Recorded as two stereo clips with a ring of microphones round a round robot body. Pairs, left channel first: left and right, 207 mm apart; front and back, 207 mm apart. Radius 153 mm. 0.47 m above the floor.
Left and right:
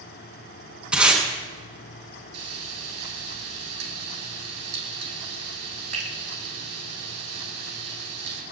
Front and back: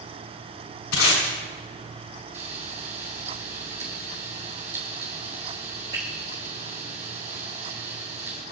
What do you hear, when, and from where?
0.9 s tape being pulled: 5° right, 5.5 m
2.3 s frying: 110° right, 3.5 m